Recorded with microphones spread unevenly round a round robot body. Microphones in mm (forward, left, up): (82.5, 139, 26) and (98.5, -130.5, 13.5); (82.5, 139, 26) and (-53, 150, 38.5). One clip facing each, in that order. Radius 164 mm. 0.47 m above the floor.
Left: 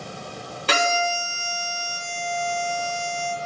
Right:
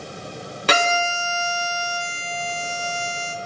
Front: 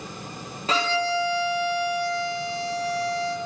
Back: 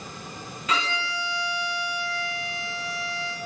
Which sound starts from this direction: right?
A violin, at 0.7 s.